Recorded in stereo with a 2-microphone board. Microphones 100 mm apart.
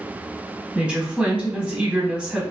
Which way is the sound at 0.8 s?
10° right (ahead or behind).